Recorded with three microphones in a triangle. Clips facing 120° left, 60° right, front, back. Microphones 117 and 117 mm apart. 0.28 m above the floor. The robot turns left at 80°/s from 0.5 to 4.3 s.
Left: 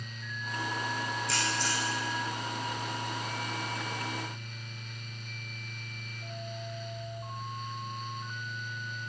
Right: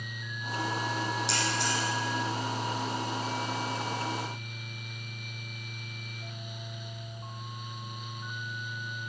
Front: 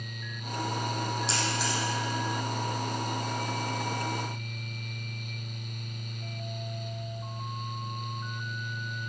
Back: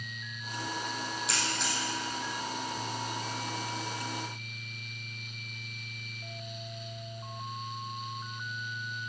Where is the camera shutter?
60° right, 6 m; by 1.8 s 100° right, 6 m.